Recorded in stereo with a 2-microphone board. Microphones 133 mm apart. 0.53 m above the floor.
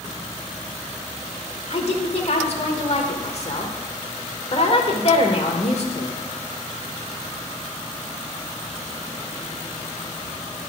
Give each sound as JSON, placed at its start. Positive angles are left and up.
{"t": 1.7, "sound": "a woman speaking", "side_deg": 50, "distance_m": 1.3}